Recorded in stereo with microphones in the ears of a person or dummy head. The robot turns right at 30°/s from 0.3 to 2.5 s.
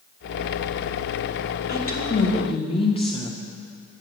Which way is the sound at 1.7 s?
50° left (ahead or behind).